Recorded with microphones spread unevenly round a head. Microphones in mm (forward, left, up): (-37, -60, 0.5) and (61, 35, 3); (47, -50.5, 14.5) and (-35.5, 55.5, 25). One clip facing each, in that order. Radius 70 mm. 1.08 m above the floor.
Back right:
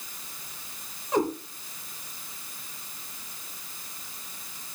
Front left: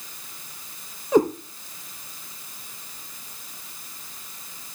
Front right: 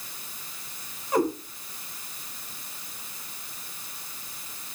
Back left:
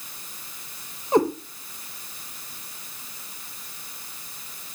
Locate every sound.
1.1 s a cat meowing: 65° left, 4 m